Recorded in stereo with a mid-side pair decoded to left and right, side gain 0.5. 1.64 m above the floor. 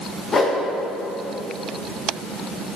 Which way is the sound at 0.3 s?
40° left.